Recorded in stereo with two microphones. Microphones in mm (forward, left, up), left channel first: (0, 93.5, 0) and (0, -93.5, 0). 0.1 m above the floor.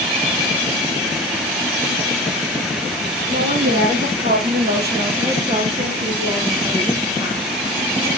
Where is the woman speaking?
50° right (ahead or behind), 3 m; by 8.1 s 10° right (ahead or behind), 5.5 m.